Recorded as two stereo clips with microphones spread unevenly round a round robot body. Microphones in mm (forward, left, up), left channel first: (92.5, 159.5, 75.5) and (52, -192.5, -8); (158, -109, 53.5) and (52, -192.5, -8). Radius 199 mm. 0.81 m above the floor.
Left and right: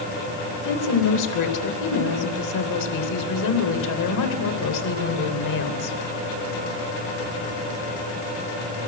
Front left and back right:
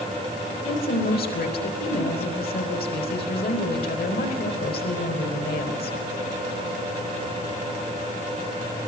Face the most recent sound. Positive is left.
turn(degrees=45)